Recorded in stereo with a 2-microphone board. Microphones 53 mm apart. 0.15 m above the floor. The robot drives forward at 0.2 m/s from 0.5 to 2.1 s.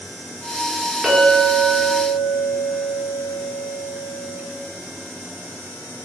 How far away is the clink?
About 1.4 m.